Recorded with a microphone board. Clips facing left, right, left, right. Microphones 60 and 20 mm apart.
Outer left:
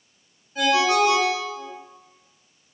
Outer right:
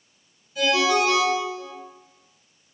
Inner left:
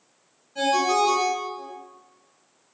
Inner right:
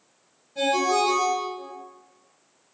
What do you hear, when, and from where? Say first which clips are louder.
0.6 s a ringtone: outer left 1 dB, inner left 1 dB; 40° left (ahead or behind), 4 m